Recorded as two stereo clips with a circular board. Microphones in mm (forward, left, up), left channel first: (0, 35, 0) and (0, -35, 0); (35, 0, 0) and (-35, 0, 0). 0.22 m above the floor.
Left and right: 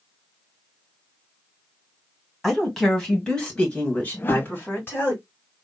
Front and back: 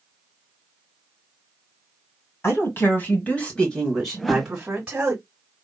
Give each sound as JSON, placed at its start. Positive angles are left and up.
{"t": 2.4, "sound": "a woman speaking", "azimuth_deg": 0, "distance_m": 1.9}
{"t": 4.1, "sound": "a whoosh", "azimuth_deg": 85, "distance_m": 0.5}